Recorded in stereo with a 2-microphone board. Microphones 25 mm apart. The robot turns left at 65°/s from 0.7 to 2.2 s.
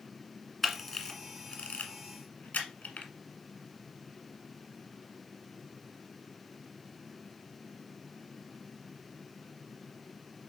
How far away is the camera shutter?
About 2 m.